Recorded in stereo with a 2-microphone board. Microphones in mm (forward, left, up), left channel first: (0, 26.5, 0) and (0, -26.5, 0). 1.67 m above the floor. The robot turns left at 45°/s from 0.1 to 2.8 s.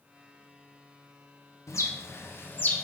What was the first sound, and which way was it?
A bird, 65° left (ahead or behind).